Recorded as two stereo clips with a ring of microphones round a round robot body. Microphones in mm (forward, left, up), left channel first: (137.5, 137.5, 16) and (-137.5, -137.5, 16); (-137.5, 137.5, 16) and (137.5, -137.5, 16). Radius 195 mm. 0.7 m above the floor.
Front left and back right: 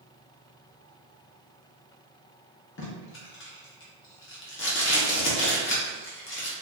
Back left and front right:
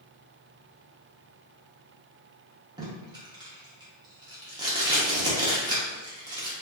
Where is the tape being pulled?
25° left, 0.8 m.